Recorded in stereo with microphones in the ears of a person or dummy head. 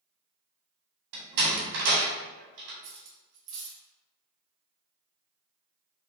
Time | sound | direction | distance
1.1 | a door slam | 75° right (ahead or behind) | 1.7 m
2.8 | cutlery clinking | 65° right (ahead or behind) | 1.1 m